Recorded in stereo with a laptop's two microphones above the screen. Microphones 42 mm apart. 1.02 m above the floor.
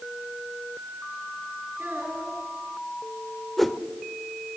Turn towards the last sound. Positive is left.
turn(degrees=0)  # may be behind; listen again after turning